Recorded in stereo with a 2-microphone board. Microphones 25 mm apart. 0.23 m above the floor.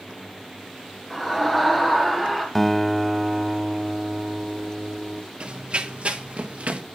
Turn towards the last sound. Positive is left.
turn(degrees=-60)  # may be behind; listen again after turning